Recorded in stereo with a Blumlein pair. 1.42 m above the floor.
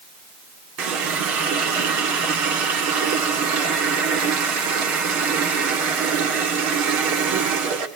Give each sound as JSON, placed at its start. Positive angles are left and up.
{"t": 0.8, "sound": "a running tap", "azimuth_deg": -40, "distance_m": 2.5}